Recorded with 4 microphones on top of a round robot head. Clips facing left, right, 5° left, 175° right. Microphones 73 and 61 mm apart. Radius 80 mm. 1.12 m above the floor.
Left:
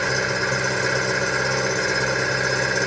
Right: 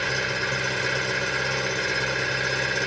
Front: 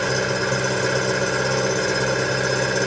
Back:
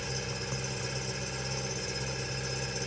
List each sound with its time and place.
0.0 s an engine running: 20° left